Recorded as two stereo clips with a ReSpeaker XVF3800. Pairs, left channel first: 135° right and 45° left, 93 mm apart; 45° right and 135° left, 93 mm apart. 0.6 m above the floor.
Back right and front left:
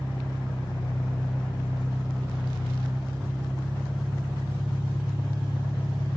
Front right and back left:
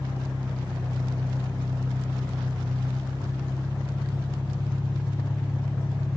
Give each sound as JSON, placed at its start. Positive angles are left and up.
{"t": 0.0, "sound": "an engine running", "azimuth_deg": -10, "distance_m": 1.6}